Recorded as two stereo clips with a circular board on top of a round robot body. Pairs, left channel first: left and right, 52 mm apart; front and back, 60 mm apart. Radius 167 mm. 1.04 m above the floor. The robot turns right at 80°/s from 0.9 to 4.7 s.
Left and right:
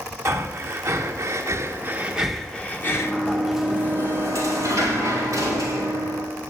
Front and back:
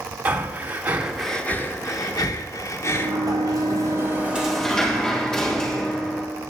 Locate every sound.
0.2 s breathing: 115° right, 1.4 m; by 3.1 s 60° left, 1.4 m
2.9 s a sliding door: 135° left, 3.5 m; by 6.3 s 80° right, 3.5 m